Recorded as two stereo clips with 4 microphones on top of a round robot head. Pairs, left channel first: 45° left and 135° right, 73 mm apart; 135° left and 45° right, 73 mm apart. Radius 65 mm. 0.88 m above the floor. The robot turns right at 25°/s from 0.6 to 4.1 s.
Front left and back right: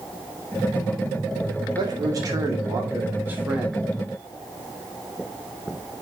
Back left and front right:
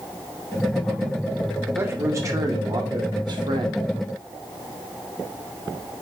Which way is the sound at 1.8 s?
105° right.